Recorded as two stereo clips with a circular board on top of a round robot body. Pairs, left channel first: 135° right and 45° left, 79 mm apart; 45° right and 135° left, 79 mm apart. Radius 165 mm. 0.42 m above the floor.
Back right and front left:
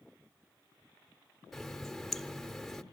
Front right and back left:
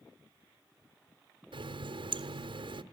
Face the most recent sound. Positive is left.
turn(degrees=140)